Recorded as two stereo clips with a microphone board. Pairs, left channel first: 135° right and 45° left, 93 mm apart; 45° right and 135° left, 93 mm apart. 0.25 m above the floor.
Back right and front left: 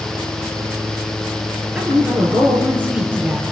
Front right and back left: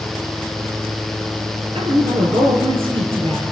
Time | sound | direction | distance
1.8 | a woman speaking | 120° left | 4.5 m